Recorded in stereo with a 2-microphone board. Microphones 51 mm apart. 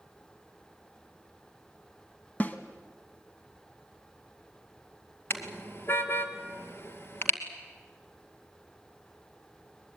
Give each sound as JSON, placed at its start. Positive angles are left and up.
{"t": 2.4, "sound": "a snare drum", "side_deg": 30, "distance_m": 1.4}
{"t": 5.3, "sound": "a car horn", "side_deg": 50, "distance_m": 2.0}